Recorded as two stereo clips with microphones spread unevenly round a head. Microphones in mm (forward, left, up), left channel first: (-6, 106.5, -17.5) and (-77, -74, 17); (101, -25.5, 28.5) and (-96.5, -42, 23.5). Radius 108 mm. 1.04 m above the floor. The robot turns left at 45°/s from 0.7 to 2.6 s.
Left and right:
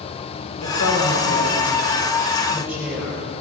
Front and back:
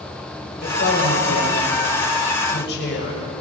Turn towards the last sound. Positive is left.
turn(degrees=-30)